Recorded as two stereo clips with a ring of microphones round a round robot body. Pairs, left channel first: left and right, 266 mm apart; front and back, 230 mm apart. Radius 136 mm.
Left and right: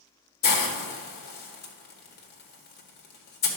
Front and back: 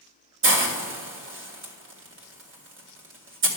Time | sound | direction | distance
0.4 | a hiss | 145° left | 1.7 m